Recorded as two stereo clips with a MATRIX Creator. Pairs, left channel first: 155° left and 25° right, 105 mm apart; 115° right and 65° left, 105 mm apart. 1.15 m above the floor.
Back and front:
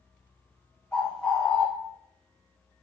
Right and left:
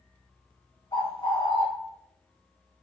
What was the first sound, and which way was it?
A bird, 125° right.